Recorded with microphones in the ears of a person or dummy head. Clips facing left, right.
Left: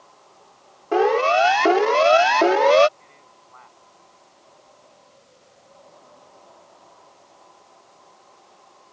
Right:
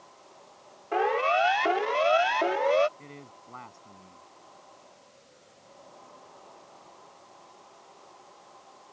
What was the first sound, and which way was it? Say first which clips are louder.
A siren: left 8 dB; 50° left (ahead or behind).